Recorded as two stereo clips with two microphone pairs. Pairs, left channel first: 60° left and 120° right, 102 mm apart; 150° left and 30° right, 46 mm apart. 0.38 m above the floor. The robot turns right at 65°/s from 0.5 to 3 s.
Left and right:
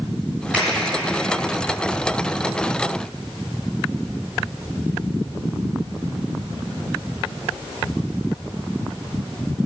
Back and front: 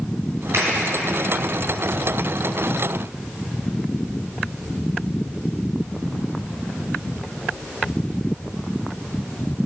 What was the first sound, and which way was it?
A finger snap, 45° right.